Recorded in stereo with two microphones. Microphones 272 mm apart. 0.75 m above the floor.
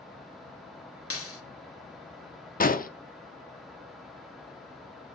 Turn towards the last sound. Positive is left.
turn(degrees=30)  # may be behind; listen again after turning